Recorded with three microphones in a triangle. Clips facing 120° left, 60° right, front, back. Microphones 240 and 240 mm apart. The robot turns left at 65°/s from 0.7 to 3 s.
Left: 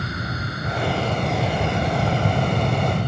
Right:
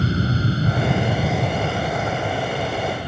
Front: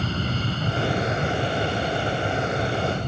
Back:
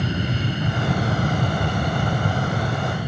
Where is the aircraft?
110° right; by 3.1 s 100° left.